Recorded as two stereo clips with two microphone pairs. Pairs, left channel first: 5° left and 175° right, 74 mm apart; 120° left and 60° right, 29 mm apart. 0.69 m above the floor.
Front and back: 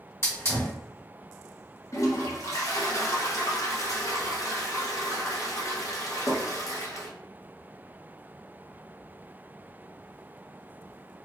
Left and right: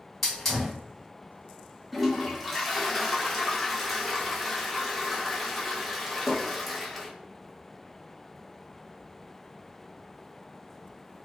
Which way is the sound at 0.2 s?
45° left.